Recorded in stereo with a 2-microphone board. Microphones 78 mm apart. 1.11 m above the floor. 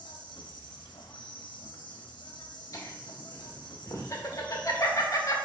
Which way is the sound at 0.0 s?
80° left.